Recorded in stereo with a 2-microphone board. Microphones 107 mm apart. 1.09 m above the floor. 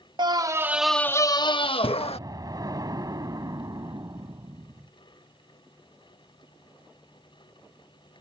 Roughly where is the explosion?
Right.